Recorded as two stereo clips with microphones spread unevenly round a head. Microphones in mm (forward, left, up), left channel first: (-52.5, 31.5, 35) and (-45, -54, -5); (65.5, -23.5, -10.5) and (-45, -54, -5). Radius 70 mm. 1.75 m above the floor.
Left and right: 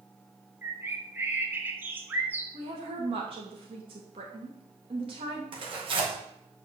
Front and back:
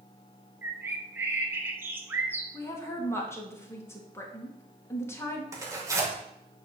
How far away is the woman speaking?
About 2.5 m.